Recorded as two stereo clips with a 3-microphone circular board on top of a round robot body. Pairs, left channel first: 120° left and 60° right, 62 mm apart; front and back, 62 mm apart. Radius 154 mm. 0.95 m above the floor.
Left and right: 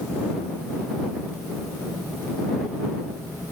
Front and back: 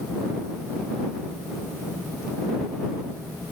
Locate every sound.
Only background noise.